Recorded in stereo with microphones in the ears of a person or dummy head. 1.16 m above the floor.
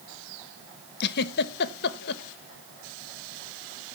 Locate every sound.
1.0 s a giggle: 60° left (ahead or behind), 0.8 m